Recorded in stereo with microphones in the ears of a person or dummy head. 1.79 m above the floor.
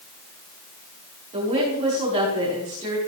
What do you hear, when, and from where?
1.3 s a woman speaking: 35° right (ahead or behind), 6 m